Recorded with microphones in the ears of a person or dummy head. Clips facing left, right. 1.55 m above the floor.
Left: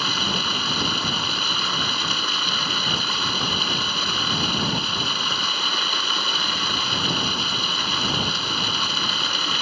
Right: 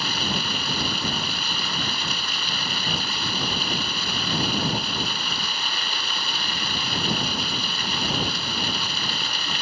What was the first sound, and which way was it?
Running water, 70° left (ahead or behind).